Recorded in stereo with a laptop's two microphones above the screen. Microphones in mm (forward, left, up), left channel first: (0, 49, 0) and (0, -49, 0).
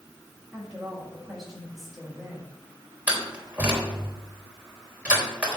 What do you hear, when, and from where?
0.5 s a woman speaking: 5° right (ahead or behind), 6 m
3.1 s a door slam: 15° right (ahead or behind), 3.5 m